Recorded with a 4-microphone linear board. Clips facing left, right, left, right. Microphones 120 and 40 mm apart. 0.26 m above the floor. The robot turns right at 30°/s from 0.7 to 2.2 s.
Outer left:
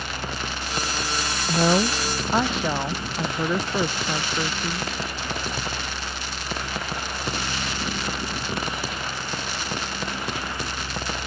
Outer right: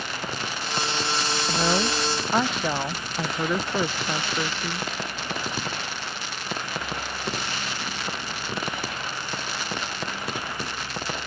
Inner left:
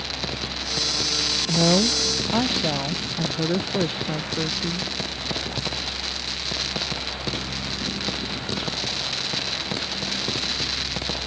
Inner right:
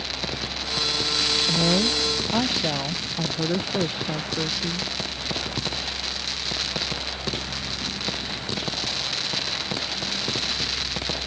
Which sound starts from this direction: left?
A woman speaking, at 1.5 s.